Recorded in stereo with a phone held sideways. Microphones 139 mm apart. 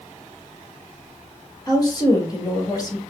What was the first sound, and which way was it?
A woman speaking, 25° left (ahead or behind).